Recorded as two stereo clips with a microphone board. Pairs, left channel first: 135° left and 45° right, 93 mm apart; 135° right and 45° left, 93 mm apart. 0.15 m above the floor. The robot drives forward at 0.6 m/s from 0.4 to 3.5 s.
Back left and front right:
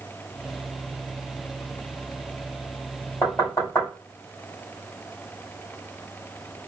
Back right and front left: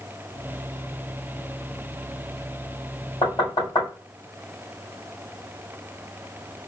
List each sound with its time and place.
3.2 s knocking: 170° right, 3 m